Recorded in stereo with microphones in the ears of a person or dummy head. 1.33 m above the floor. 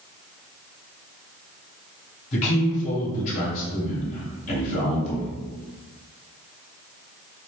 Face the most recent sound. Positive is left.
turn(degrees=40)  # may be behind; listen again after turning